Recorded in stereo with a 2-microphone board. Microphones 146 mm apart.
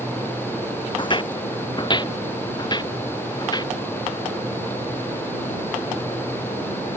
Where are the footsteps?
35° left (ahead or behind); by 3.7 s 30° left (ahead or behind).